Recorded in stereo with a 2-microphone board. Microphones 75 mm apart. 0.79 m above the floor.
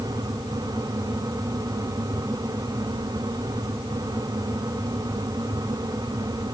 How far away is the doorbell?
No doorbell in this recording.